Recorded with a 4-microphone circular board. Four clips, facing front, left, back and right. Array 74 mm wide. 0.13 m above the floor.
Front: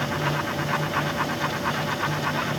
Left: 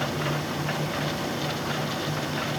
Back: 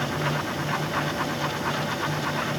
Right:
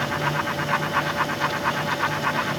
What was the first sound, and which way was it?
Only background noise.